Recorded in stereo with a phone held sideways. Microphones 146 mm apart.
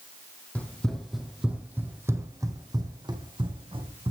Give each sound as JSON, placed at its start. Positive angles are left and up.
{"t": 0.6, "sound": "running footsteps", "side_deg": 10, "distance_m": 2.0}